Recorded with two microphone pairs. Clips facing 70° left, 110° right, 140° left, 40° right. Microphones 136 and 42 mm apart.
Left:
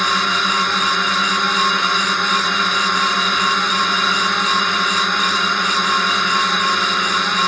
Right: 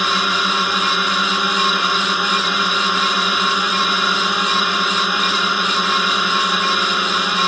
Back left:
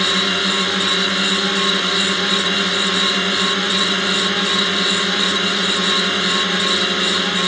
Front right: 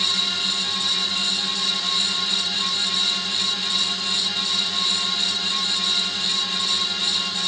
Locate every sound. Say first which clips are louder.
0.0 s a drone: even, back left 7 dB; 170° left